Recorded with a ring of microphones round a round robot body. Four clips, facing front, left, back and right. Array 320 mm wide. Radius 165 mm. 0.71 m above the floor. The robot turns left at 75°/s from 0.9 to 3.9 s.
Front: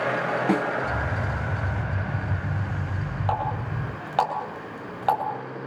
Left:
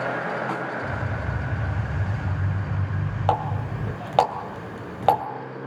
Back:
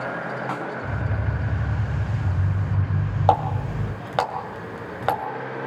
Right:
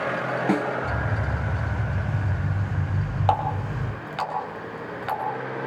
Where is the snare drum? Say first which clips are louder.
Right 5 dB, front 8 dB; 45° right, 3 m.